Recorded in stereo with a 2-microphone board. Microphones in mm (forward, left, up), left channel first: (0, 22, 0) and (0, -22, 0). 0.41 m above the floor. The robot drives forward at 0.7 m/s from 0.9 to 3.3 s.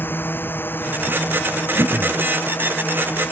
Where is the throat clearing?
80° right.